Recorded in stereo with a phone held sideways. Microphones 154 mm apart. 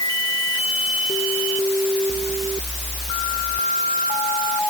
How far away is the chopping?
I don't hear chopping.